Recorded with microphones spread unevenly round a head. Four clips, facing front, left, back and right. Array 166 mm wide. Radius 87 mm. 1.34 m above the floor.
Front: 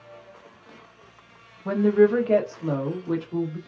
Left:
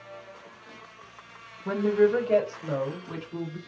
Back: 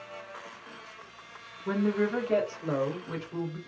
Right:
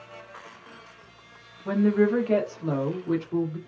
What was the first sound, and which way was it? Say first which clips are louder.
A woman speaking: even, front 9 dB; 5° right.